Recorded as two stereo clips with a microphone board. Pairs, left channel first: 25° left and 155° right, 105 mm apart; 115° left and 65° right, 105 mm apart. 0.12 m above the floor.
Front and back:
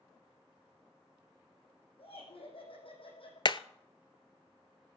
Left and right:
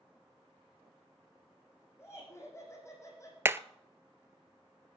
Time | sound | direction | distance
2.0 | laughter | 50° left | 6.5 m
3.5 | hammering | 5° right | 0.5 m